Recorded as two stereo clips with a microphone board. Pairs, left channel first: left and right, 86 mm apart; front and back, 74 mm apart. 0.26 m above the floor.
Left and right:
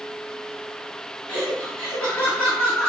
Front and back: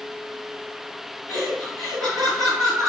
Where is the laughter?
175° left, 1.5 m.